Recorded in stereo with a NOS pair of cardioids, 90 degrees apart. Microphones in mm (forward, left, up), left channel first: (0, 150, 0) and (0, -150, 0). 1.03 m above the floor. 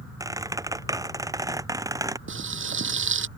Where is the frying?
40° right.